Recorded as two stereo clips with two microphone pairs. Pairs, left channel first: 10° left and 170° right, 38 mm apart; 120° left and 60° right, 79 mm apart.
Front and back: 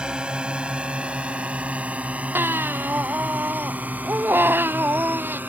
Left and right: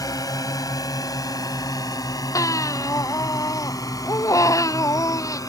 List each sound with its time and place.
0.0 s a drone: 130° left; by 5.5 s 155° left
2.4 s a baby crying: 165° left